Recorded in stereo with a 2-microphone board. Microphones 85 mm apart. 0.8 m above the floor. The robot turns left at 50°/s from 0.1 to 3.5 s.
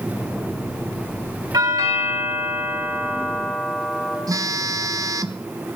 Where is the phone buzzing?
40° right (ahead or behind), 0.5 m.